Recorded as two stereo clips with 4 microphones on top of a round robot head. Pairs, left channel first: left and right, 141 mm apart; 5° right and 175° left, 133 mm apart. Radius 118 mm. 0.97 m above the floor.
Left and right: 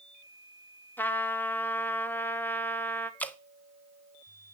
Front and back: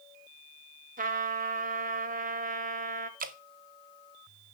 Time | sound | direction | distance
1.0 | a trumpet | 165° left | 0.9 m
3.2 | dripping | 170° left | 0.9 m